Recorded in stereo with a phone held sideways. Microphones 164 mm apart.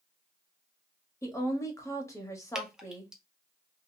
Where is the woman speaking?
20° left (ahead or behind), 1.2 m.